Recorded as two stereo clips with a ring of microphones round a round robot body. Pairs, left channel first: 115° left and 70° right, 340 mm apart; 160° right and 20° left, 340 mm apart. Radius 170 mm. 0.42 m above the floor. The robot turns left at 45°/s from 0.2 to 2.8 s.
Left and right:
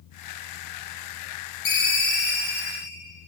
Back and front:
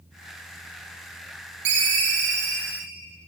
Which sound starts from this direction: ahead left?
A ringtone, at 1.6 s.